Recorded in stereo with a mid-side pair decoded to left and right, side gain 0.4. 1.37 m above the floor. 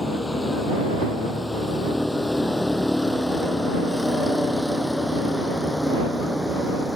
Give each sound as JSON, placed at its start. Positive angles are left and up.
{"t": 0.0, "sound": "a vehicle", "azimuth_deg": 20}